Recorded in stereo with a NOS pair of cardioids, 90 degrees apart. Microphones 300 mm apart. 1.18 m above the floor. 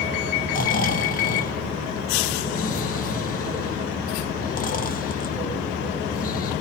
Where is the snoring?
30° left, 0.6 m.